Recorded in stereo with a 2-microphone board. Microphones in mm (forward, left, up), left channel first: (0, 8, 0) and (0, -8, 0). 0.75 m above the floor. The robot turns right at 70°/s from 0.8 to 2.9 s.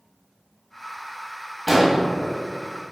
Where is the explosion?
10° right (ahead or behind), 0.9 m; by 2.0 s 30° right (ahead or behind), 0.9 m.